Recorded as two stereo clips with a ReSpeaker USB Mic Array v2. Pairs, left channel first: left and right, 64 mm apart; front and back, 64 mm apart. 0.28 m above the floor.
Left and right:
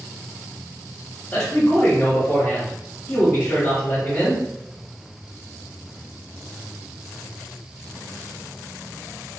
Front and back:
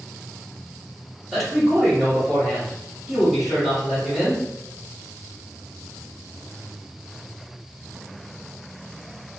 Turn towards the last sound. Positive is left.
turn(degrees=90)